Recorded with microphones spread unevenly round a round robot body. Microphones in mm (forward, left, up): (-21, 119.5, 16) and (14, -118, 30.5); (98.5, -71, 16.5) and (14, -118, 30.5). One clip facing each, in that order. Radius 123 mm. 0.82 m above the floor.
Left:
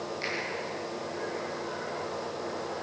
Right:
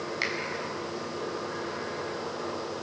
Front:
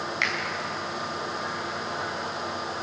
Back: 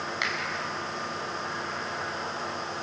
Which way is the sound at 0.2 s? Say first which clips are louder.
Right 2 dB, front 2 dB; 80° right.